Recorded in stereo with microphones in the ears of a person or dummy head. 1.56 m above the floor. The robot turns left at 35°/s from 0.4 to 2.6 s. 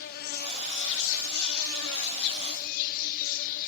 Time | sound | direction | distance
0.0 | an insect | 125° left | 1.4 m